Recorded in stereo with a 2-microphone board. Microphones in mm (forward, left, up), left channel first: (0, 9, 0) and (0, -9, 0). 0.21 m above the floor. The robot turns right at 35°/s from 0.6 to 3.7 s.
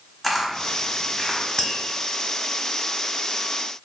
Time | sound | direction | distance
0.2 | a camera shutter | 5° left (ahead or behind) | 1.2 m
1.6 | tapping | 20° left (ahead or behind) | 1.1 m